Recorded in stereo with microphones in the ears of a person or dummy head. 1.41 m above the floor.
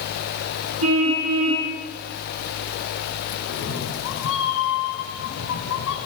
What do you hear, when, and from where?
0.8 s a car horn: 85° right, 8 m
3.5 s a cat meowing: 70° left (ahead or behind), 4 m